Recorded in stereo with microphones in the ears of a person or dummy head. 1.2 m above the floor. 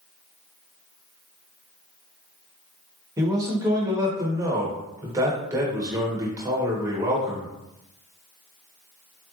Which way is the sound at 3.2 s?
20° right (ahead or behind).